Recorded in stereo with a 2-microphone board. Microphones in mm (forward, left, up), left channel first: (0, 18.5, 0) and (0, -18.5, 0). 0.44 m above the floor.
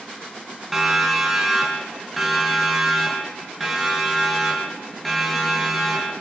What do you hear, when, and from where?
0.7 s a siren: 10° right (ahead or behind), 5 m; by 6.2 s 5° left (ahead or behind), 9 m